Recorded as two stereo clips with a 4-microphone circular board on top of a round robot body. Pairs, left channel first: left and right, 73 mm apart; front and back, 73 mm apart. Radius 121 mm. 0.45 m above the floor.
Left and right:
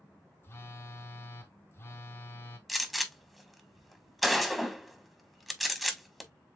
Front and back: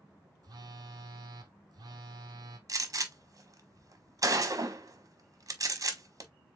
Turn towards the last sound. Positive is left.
turn(degrees=180)